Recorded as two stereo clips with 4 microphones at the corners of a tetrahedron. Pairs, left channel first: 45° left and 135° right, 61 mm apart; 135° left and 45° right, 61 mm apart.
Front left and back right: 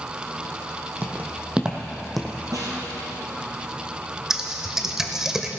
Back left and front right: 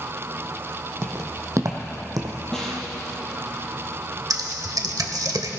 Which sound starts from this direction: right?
Footsteps, at 1.0 s.